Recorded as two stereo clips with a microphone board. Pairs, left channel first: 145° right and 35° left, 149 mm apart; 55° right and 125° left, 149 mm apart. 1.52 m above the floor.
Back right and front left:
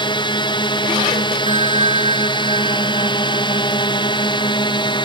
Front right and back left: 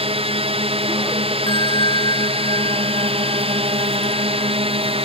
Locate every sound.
0.0 s a drone: 165° left
1.5 s a bell: 110° right